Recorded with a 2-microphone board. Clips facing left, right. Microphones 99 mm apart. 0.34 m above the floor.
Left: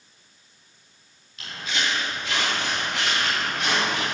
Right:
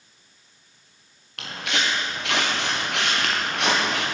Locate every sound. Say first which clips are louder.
1.4 s footsteps: right 2 dB; 70° right (ahead or behind), 3 m; by 4.0 s 80° right, 4 m